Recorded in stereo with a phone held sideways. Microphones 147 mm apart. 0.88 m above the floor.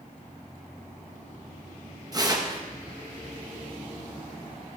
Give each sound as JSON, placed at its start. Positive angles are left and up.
{"t": 2.1, "sound": "tearing paper", "side_deg": -25, "distance_m": 1.0}